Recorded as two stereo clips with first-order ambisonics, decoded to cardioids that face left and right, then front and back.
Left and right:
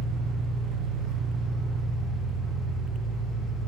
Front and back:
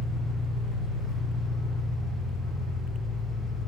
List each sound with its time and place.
0.0 s an engine running: 50° right, 0.8 m